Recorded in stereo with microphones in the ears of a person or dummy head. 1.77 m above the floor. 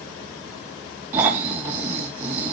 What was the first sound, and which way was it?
Snoring, 10° right (ahead or behind).